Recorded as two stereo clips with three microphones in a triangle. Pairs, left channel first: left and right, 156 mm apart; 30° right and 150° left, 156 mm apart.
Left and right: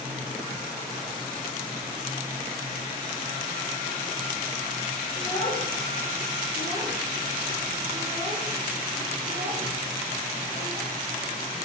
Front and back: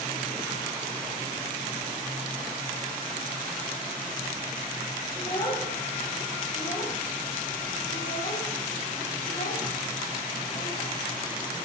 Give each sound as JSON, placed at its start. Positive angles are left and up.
{"t": 5.2, "sound": "a child speaking", "azimuth_deg": 25, "distance_m": 4.5}